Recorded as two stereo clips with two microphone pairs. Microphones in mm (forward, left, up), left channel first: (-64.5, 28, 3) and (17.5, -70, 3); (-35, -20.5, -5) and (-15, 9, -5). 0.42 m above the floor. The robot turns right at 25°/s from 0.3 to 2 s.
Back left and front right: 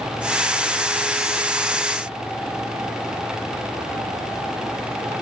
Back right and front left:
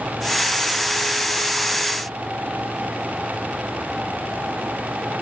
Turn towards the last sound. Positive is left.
No sound to turn to.